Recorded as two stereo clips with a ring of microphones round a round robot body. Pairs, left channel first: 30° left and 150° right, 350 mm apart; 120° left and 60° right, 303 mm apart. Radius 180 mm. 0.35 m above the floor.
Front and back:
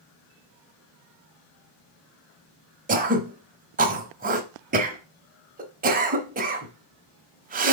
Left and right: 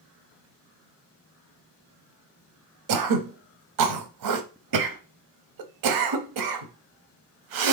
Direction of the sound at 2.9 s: 85° right.